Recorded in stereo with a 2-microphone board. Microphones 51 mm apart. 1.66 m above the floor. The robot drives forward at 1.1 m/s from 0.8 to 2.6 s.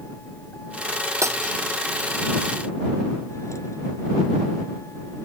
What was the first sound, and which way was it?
A vehicle, 65° left (ahead or behind).